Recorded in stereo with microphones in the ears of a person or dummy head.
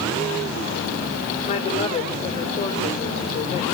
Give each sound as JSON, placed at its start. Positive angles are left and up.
{"t": 1.5, "sound": "a woman speaking", "side_deg": 35, "distance_m": 6.0}